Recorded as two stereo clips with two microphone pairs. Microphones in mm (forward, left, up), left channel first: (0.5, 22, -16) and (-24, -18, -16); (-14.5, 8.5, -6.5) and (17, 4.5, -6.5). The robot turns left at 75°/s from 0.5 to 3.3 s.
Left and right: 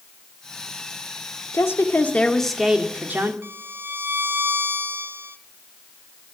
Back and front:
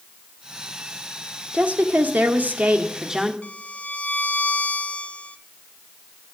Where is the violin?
150° right, 0.7 m.